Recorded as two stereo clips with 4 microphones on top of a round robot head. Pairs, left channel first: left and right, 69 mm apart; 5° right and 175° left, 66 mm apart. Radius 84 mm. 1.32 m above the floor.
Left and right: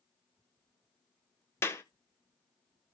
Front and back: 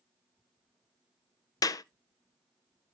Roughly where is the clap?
Ahead left.